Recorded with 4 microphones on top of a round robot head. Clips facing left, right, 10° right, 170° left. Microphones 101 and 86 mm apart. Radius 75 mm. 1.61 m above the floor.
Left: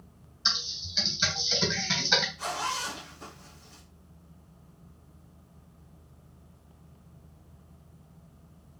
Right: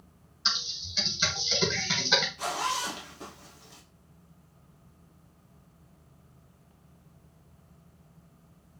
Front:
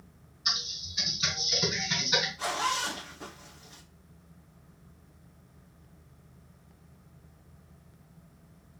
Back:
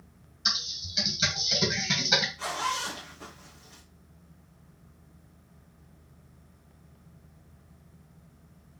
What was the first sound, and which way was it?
Typing on a keyboard, 175° right.